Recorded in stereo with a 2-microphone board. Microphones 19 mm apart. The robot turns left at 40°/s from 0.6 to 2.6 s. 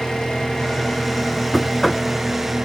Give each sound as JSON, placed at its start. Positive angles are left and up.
{"t": 0.0, "sound": "an engine running", "azimuth_deg": 45, "distance_m": 2.5}
{"t": 1.5, "sound": "knocking", "side_deg": 0, "distance_m": 0.8}